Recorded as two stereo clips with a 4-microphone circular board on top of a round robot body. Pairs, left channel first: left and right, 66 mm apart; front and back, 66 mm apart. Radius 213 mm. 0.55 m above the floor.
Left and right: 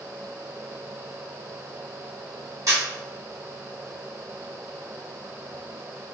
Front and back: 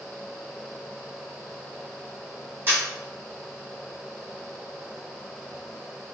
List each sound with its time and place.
2.7 s a camera shutter: 125° right, 1.7 m